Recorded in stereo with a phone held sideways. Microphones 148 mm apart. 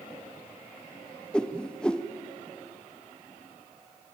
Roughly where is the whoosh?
Centre.